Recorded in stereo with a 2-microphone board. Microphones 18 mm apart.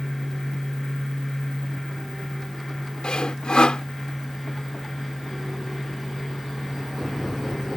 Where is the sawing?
75° left (ahead or behind).